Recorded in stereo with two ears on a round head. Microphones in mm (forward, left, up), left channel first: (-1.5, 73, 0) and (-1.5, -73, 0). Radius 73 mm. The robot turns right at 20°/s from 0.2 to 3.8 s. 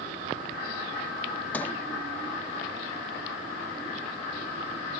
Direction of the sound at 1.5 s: 10° left (ahead or behind).